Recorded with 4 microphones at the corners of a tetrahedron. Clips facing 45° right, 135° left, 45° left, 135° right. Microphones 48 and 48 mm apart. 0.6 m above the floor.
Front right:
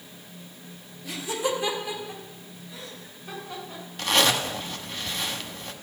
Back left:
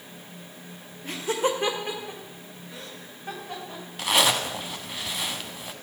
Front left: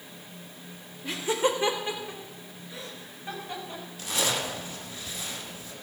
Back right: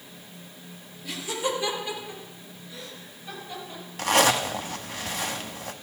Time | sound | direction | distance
1.0 | laughter | 95° left | 2 m
4.0 | a zipper | 145° right | 1.2 m